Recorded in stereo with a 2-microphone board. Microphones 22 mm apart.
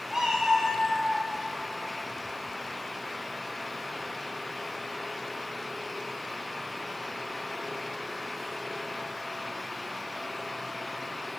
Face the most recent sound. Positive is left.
turn(degrees=-5)  # may be behind; listen again after turning